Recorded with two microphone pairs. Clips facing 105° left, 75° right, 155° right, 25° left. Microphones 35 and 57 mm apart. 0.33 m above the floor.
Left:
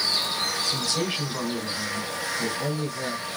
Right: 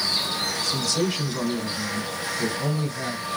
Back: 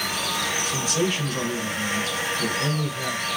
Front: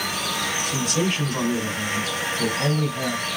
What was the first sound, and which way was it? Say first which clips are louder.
A man speaking: right 2 dB, front 1 dB; 50° left.